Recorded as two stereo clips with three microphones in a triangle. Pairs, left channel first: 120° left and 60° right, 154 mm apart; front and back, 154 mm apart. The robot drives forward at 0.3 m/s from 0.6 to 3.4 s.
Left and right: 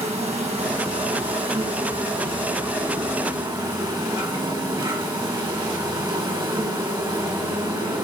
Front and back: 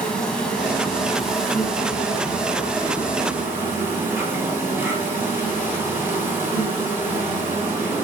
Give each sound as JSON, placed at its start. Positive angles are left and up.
{"t": 0.0, "sound": "an insect", "azimuth_deg": -80, "distance_m": 2.5}